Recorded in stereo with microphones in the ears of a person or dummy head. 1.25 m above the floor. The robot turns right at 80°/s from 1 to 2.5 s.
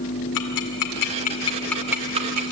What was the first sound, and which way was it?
Ticking, 60° left (ahead or behind).